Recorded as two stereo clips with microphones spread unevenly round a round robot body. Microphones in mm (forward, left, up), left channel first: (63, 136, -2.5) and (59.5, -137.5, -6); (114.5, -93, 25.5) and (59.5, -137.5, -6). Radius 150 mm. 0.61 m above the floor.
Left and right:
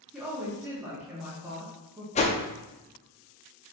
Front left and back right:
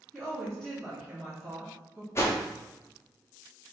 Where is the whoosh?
105° left, 0.5 m.